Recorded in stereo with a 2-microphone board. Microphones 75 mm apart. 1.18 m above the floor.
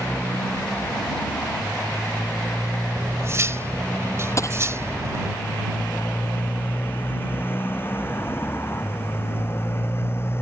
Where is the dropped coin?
35° left (ahead or behind).